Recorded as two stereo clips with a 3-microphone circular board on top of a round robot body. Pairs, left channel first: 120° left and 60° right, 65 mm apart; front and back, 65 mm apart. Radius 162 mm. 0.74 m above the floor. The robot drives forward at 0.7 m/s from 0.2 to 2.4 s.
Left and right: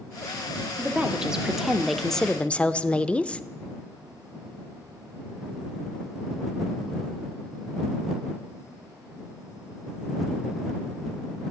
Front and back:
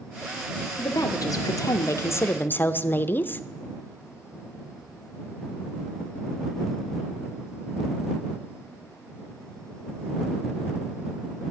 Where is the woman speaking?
15° left, 1.6 m; by 3.4 s 50° left, 0.7 m.